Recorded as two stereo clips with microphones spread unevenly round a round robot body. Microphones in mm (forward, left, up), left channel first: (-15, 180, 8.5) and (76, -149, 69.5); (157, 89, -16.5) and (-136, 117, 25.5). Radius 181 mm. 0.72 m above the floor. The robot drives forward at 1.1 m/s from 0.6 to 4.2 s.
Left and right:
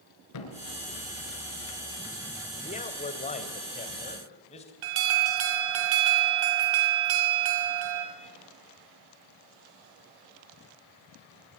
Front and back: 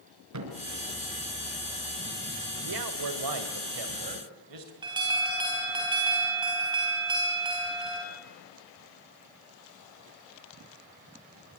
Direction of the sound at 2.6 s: 175° left.